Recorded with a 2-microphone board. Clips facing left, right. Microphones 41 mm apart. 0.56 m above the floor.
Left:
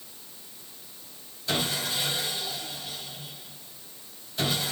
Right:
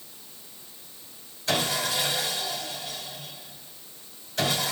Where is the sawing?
75° right (ahead or behind), 4 m.